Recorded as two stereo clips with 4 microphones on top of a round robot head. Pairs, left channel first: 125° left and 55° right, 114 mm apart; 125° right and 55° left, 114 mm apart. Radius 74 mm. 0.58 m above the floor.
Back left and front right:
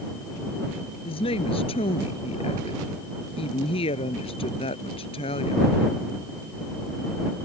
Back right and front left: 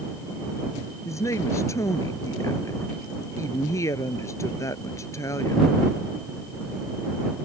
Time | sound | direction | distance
1.1 | a woman speaking | 170° left | ?